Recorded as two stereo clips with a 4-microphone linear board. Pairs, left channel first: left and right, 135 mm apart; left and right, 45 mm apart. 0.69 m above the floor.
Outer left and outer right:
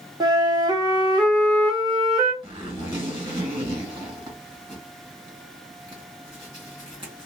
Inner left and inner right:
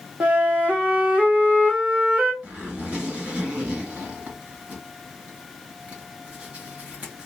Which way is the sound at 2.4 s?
35° right (ahead or behind).